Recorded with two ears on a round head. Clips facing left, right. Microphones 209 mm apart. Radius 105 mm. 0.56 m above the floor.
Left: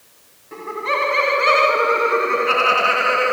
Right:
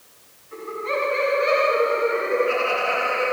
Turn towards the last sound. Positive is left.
turn(degrees=70)  # may be behind; listen again after turning